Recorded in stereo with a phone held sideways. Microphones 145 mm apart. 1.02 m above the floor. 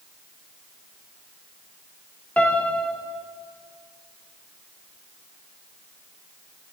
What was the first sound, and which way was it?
A piano, 10° left (ahead or behind).